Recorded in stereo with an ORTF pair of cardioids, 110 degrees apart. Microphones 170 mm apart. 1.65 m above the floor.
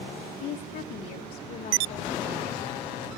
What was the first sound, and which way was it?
A woman speaking, 70° left.